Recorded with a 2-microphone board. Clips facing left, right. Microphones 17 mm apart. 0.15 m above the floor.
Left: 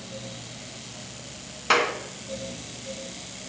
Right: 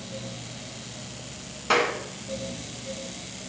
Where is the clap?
20° left (ahead or behind), 1.6 m.